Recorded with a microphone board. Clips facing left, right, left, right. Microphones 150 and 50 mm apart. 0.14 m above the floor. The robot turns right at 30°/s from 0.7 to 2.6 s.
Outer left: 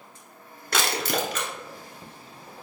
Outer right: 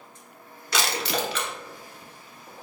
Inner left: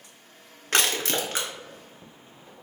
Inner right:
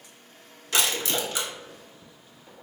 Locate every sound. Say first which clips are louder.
0.7 s crushing: outer left 1 dB, inner left 1 dB; 55° left (ahead or behind), 1.0 m; by 1.5 s 40° left (ahead or behind), 1.0 m